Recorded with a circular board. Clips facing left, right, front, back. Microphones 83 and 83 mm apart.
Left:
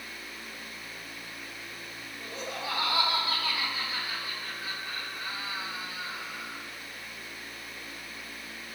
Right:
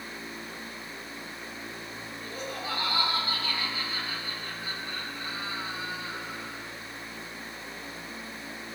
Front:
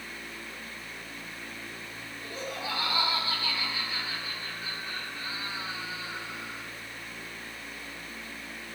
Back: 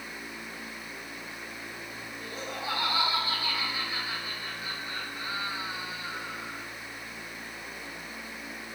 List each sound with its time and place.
2.2 s laughter: 105° left, 5 m